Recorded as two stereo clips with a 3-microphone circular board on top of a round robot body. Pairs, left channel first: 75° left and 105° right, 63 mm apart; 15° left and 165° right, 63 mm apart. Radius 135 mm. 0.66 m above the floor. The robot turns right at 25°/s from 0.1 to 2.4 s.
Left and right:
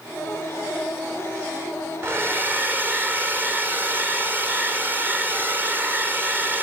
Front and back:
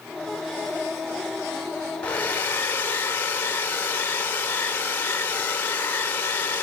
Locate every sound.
2.0 s a hair dryer: 55° right, 2.5 m; by 6.6 s 45° right, 2.5 m